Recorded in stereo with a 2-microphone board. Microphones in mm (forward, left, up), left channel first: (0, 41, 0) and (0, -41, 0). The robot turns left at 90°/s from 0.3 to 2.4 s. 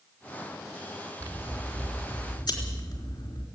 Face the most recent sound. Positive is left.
turn(degrees=105)